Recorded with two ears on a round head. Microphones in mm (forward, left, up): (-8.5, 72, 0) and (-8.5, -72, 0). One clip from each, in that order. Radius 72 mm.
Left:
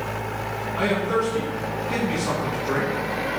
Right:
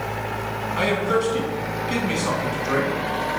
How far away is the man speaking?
About 2.5 m.